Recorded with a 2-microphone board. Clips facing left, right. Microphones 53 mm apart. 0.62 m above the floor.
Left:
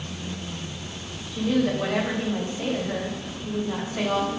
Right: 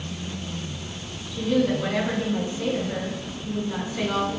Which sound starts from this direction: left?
A woman speaking, at 1.3 s.